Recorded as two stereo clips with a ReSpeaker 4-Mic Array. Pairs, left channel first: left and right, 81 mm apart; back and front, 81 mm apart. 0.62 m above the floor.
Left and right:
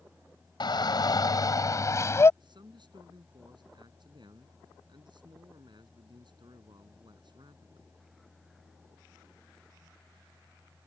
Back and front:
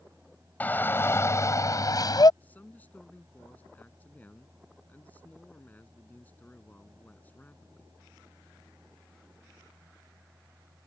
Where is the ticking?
I don't hear ticking.